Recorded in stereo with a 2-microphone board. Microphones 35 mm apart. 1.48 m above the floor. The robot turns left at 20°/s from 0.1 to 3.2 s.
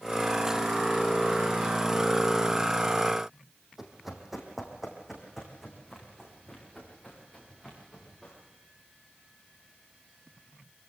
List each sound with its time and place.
3.8 s running footsteps: 10° right (ahead or behind), 3.5 m